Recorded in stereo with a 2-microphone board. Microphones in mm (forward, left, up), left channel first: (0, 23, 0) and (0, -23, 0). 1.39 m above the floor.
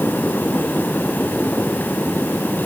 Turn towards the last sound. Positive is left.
No sound to turn to.